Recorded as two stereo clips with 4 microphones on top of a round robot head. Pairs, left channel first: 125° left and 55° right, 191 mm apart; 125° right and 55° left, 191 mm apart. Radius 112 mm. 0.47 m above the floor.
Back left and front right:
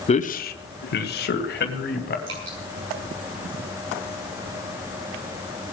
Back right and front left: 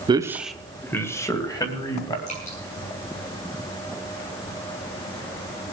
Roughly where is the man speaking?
Left.